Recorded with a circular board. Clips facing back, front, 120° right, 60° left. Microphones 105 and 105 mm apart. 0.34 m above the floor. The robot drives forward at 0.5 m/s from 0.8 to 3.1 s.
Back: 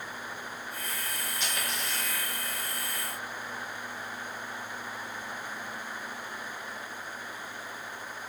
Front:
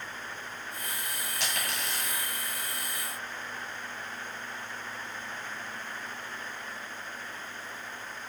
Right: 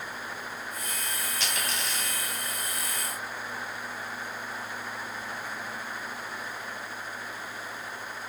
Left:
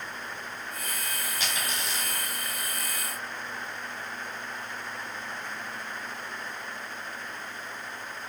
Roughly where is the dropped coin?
Ahead right.